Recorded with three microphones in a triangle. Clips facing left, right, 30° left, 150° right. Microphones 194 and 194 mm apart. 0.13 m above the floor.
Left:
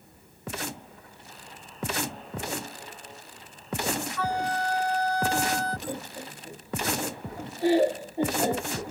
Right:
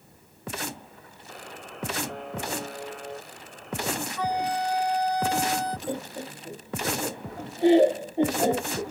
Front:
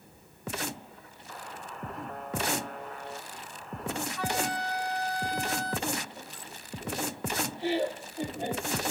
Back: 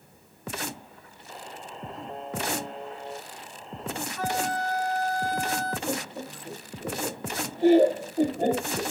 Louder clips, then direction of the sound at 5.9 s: Right 3 dB, back 5 dB; 150° right.